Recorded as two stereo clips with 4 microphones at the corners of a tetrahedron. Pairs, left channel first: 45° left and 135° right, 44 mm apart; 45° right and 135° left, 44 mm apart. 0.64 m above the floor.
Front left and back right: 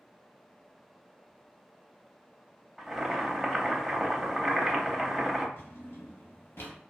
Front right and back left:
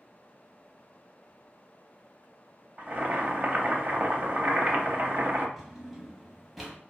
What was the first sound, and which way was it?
Boiling, 145° left.